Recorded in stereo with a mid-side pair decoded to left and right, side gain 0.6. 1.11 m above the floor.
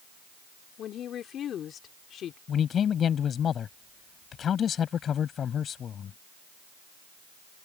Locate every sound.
0.8 s a woman speaking: 50° left
2.5 s a man speaking: 40° left